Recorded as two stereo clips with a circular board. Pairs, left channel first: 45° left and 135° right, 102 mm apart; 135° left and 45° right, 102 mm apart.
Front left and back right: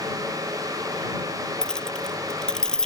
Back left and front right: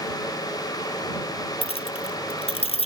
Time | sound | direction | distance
1.6 | keys jangling | 130° left | ?